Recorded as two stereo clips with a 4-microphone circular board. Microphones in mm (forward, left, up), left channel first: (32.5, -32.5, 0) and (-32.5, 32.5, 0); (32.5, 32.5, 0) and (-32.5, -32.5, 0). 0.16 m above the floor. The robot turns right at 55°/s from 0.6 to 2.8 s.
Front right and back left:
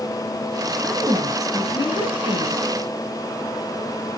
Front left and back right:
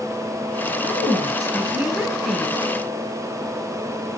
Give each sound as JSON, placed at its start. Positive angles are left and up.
{"t": 0.8, "sound": "a woman speaking", "azimuth_deg": -125, "distance_m": 2.5}